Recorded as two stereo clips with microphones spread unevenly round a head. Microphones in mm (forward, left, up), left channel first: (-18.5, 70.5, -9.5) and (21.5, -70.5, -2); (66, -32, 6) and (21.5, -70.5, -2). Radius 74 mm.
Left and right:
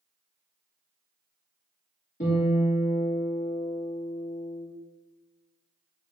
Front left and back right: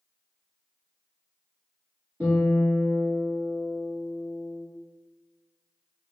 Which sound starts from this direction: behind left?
A guitar, at 2.2 s.